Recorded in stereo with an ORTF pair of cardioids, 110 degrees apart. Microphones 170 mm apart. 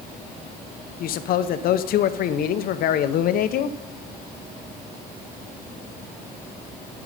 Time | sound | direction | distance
1.0 | a man speaking | 60° left | 0.7 m